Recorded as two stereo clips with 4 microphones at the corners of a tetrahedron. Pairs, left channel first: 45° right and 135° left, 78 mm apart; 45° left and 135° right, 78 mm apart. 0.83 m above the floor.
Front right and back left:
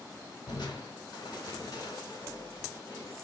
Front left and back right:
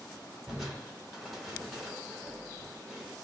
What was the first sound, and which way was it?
Crushing, 50° right.